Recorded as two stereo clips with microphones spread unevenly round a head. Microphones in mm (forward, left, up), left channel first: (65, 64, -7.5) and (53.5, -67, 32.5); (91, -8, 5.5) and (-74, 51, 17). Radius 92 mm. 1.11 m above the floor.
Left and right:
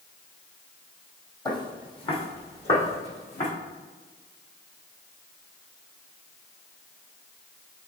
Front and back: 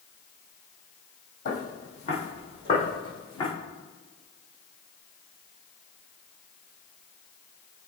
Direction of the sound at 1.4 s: 25° left.